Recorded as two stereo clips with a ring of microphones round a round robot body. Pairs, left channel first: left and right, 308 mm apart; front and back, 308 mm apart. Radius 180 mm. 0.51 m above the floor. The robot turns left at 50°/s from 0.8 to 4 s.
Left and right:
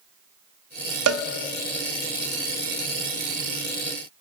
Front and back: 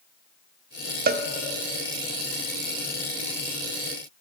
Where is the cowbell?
120° right, 0.5 m; by 1.2 s 130° right, 0.5 m.